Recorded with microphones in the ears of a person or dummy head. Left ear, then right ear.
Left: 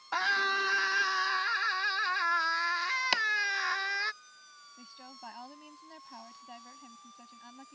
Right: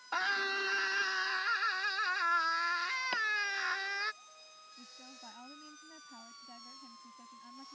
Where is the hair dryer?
No hair dryer in this recording.